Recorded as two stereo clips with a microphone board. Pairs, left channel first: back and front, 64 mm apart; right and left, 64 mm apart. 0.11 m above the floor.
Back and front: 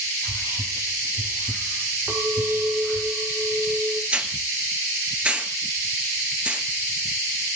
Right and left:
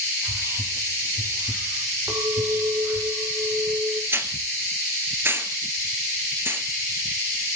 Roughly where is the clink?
Ahead left.